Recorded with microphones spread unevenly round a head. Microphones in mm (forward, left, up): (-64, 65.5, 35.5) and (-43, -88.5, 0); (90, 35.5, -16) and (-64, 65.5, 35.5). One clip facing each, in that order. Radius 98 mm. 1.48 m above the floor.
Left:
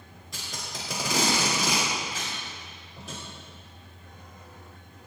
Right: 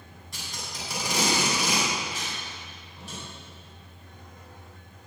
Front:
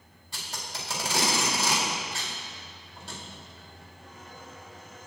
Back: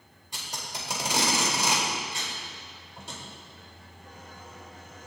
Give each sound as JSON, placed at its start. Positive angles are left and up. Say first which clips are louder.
{"t": 0.3, "sound": "tape being pulled", "louder": "left 1 dB, even", "azimuth_deg": 95, "distance_m": 4.0}